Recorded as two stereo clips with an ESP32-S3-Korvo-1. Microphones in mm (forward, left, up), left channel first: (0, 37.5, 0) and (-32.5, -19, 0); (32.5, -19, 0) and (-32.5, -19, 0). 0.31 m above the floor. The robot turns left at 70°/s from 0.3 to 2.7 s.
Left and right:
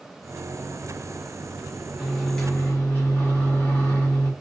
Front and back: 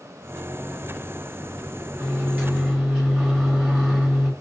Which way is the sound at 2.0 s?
155° left.